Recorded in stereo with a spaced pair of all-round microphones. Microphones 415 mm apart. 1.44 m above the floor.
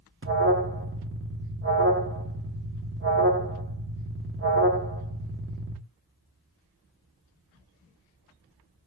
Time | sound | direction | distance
0.2 | an alarm | 30° right (ahead or behind) | 0.7 m